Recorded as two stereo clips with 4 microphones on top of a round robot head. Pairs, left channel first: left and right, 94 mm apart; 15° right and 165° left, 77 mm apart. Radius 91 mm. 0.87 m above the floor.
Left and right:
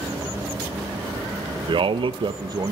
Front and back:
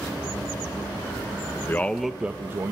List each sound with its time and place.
1.7 s a man speaking: 70° right, 0.5 m; by 2.7 s 140° right, 0.8 m